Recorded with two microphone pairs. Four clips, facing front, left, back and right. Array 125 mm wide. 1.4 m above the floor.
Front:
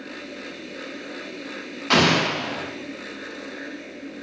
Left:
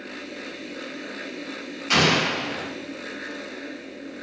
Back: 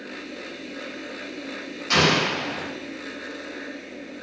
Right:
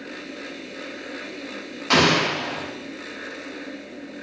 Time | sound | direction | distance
1.9 | an explosion | 45° right | 0.5 m